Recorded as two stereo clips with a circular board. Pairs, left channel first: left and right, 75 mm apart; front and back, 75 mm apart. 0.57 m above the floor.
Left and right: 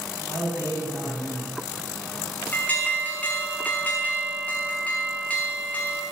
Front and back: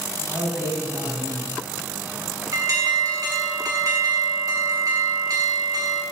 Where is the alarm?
155° left, 1.4 m.